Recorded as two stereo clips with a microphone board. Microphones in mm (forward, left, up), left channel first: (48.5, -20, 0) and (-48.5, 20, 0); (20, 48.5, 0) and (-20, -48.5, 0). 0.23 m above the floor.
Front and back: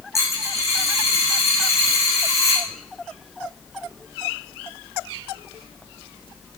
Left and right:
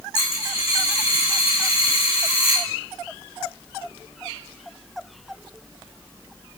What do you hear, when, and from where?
0.1 s a dropped coin: 40° left, 4.5 m